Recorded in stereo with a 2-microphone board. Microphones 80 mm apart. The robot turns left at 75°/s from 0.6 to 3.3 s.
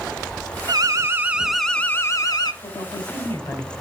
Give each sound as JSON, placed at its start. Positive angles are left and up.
{"t": 0.7, "sound": "an alarm", "azimuth_deg": -115, "distance_m": 0.9}
{"t": 2.6, "sound": "a woman speaking", "azimuth_deg": 85, "distance_m": 3.0}